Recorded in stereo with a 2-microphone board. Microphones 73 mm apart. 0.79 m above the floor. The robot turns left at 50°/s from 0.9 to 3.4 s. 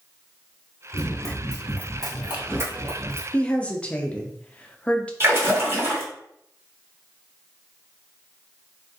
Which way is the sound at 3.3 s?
15° left (ahead or behind).